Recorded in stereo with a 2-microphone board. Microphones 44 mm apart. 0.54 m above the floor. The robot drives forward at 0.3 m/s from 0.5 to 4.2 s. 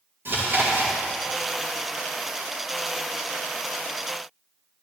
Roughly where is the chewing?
Right.